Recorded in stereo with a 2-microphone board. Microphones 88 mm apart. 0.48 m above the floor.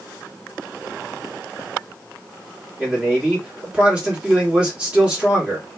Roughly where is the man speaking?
Centre.